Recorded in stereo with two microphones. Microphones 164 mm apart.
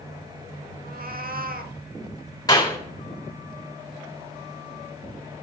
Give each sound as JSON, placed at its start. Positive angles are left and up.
{"t": 0.8, "sound": "a cat meowing", "side_deg": -65, "distance_m": 0.9}
{"t": 2.5, "sound": "a clap", "side_deg": 20, "distance_m": 3.5}